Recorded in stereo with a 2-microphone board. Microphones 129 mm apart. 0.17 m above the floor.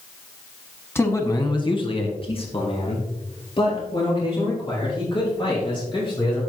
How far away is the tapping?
I don't hear tapping.